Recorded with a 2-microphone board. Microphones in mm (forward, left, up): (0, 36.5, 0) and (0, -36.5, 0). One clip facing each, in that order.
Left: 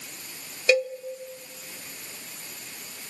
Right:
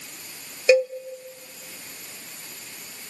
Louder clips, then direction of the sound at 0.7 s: Right 5 dB; 20° right (ahead or behind).